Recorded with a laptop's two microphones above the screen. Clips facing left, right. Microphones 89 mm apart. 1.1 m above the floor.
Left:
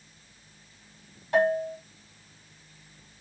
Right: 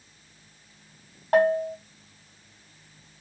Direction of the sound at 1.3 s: 50° right (ahead or behind).